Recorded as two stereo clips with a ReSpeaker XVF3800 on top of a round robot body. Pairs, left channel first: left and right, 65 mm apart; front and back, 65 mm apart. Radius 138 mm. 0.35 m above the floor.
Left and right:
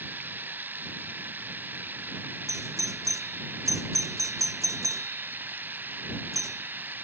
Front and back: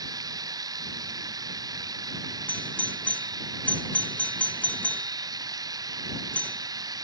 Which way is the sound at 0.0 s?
155° right.